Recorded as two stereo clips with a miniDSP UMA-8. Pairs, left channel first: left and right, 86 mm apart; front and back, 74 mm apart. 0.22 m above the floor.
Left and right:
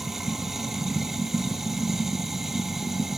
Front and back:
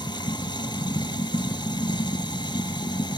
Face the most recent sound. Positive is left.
turn(degrees=-5)